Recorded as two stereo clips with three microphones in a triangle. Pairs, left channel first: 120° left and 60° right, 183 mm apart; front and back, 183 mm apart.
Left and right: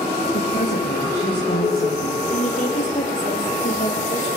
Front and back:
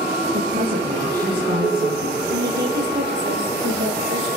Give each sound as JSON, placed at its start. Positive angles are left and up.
{"t": 0.3, "sound": "a woman speaking", "azimuth_deg": 150, "distance_m": 5.0}
{"t": 2.3, "sound": "a woman speaking", "azimuth_deg": 165, "distance_m": 5.5}